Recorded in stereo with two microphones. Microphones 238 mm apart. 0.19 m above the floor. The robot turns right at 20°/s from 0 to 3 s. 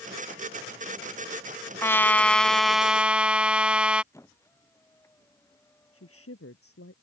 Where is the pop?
No pop in this recording.